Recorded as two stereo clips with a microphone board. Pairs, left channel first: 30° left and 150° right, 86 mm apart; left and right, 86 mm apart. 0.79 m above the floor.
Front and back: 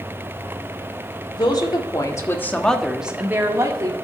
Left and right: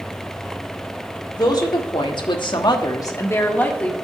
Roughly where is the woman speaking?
Ahead left.